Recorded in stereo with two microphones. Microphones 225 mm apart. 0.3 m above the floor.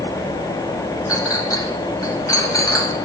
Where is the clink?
15° left (ahead or behind), 1.2 m.